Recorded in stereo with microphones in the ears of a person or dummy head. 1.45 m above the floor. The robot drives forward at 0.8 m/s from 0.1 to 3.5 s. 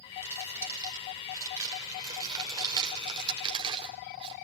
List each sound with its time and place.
0.2 s crumpling: 15° right (ahead or behind), 6.5 m; by 4.3 s 30° right (ahead or behind), 4 m